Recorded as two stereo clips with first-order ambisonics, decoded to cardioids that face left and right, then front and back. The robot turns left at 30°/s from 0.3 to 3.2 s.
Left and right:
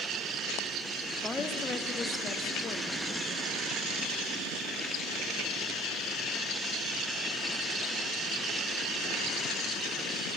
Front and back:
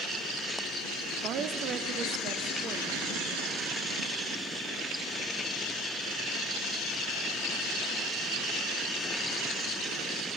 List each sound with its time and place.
1.2 s a woman speaking: 175° left, 0.7 m; by 3.6 s 115° left, 0.7 m